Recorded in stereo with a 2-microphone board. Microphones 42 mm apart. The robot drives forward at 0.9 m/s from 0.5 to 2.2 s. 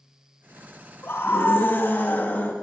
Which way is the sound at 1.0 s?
65° left (ahead or behind).